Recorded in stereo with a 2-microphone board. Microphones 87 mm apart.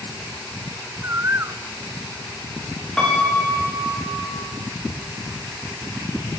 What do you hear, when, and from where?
1.0 s a bird: 35° right (ahead or behind), 0.6 m
3.0 s a piano: 10° left (ahead or behind), 7 m